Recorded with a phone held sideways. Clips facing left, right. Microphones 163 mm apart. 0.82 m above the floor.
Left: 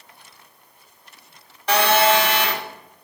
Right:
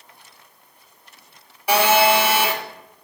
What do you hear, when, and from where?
1.7 s a phone buzzing: 10° right (ahead or behind), 1.5 m